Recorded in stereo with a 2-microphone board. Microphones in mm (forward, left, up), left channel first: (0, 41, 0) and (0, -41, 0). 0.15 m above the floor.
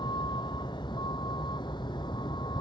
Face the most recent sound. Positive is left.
turn(degrees=70)  # may be behind; listen again after turning